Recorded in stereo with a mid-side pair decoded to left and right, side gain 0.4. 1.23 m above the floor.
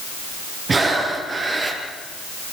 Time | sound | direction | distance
0.7 | breathing | 40° right | 6 m